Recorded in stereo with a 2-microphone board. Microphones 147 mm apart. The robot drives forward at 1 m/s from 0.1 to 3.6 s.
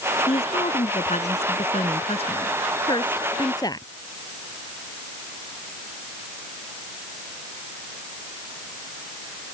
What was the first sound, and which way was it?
A woman speaking, 40° left (ahead or behind).